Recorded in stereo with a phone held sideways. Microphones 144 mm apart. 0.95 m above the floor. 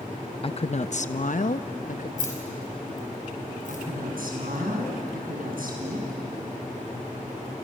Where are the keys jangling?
65° left (ahead or behind), 5 m.